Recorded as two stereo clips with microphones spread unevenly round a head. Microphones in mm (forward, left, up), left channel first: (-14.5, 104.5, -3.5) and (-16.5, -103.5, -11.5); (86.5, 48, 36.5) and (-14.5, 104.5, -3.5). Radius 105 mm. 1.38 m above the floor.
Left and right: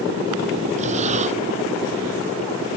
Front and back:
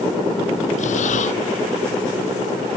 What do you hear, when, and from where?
0.8 s breathing: 30° right